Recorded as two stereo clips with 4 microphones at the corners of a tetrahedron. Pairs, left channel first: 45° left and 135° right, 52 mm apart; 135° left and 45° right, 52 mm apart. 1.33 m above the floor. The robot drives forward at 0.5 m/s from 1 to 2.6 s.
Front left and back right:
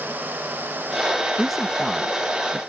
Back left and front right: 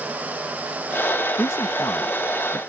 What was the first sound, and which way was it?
A man speaking, 135° left.